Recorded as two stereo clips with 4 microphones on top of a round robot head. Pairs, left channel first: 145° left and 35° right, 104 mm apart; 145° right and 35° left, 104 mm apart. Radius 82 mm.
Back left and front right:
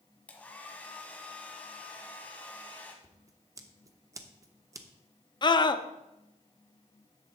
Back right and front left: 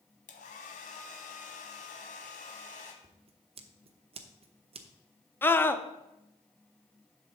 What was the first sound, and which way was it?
A hair dryer, 140° right.